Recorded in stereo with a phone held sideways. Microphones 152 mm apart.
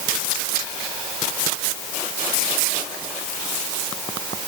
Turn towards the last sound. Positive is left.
No sound to turn to.